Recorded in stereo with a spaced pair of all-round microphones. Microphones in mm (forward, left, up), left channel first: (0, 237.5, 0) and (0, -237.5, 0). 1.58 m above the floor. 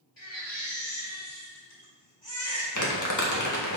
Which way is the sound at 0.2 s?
75° left (ahead or behind).